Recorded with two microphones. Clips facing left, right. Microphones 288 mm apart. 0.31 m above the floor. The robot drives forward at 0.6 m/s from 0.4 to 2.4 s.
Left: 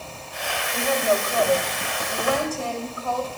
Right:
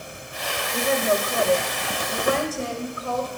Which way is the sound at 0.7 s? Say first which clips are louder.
Even; 25° right (ahead or behind).